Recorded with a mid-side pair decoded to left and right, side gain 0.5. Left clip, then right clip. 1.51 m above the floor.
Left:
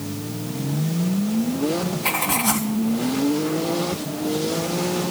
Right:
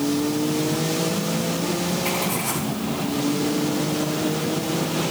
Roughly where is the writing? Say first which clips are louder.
Left 3 dB; ahead left.